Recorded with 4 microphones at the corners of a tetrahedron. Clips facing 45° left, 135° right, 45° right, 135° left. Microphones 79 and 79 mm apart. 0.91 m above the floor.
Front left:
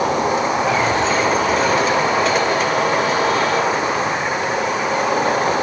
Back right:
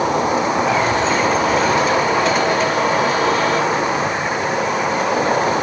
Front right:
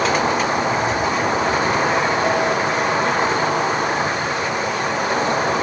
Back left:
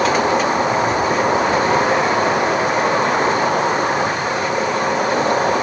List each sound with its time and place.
0.0 s an insect: 135° left, 5 m